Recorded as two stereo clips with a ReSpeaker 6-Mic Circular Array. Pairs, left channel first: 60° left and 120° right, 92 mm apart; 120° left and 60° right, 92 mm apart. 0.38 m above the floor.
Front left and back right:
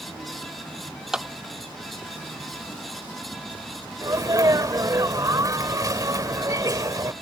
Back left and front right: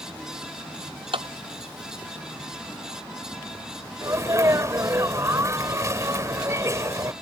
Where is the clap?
40° right.